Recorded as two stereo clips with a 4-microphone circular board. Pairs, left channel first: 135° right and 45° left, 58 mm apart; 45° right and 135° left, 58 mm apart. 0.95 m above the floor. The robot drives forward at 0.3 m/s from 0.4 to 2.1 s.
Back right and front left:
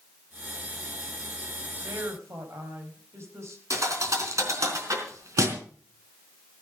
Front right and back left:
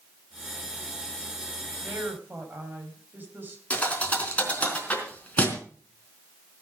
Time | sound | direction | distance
1.8 | a woman speaking | 80° left | 4.5 m
3.7 | a thud | 20° left | 4 m